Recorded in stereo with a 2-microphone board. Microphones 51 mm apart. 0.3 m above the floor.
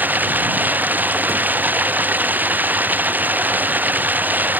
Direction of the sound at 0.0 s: 40° right (ahead or behind).